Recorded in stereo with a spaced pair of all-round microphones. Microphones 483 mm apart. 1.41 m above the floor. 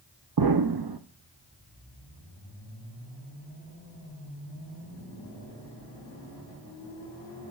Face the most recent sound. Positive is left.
turn(degrees=-50)  # may be behind; listen again after turning